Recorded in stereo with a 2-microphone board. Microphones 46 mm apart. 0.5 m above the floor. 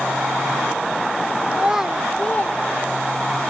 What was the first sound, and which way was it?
A child speaking, 30° right (ahead or behind).